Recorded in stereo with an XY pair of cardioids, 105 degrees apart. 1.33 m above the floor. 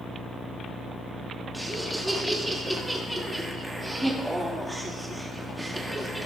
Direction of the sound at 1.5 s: 5° right.